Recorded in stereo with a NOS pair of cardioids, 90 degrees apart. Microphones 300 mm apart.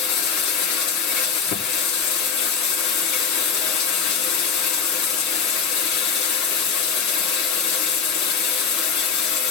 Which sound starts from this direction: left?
Running water, at 0.0 s.